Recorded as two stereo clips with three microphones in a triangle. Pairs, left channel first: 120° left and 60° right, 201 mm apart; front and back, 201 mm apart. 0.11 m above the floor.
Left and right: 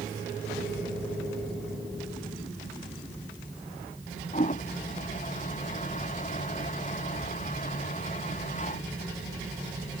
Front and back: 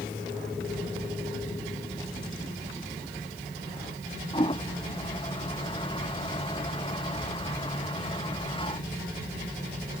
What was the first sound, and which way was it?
A toilet flushing, 65° left.